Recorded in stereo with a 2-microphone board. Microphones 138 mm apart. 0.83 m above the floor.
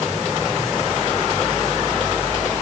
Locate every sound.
Only background noise.